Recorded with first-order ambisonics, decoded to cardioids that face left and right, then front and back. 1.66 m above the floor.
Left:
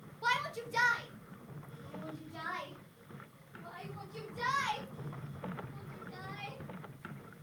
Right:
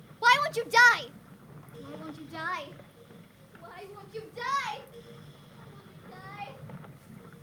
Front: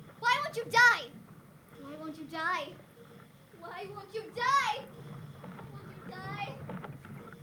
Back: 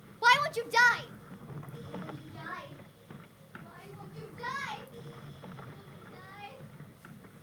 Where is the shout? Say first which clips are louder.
Right 11 dB, back 5 dB; 125° right, 0.7 m; by 6.6 s 20° right, 3.5 m.